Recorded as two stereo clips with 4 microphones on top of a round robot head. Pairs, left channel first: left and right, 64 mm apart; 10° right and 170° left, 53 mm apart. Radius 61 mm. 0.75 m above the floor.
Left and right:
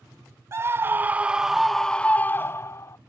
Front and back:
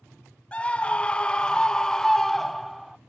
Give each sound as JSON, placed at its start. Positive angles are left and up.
{"t": 0.5, "sound": "a scream", "azimuth_deg": -70}